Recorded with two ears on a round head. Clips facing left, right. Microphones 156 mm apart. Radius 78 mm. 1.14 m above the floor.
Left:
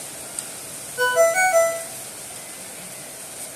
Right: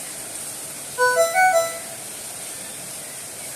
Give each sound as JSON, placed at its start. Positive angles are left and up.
{"t": 1.0, "sound": "a ringtone", "side_deg": 35, "distance_m": 1.0}